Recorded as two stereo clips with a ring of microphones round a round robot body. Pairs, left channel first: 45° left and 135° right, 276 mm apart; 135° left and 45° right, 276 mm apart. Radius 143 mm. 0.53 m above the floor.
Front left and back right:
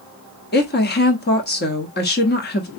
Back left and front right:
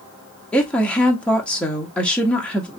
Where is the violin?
No violin in this recording.